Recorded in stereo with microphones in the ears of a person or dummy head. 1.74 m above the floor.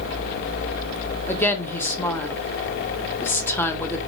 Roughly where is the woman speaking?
Centre.